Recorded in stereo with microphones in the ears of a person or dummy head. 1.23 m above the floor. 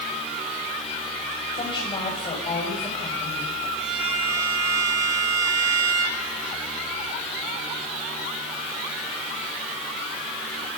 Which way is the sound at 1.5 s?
30° left (ahead or behind).